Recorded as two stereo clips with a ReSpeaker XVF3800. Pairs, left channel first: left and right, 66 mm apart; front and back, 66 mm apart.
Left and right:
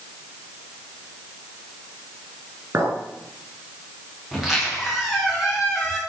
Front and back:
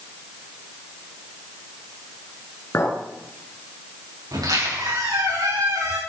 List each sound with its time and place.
2.7 s a clink: 45° right, 2.5 m
4.3 s a squeak: 175° right, 6 m